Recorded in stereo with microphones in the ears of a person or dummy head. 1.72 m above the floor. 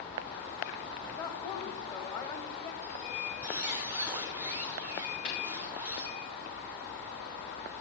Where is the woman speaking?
15° left (ahead or behind), 1.4 m.